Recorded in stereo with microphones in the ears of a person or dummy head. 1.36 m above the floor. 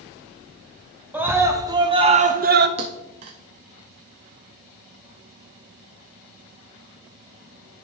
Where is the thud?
30° right (ahead or behind), 0.7 m.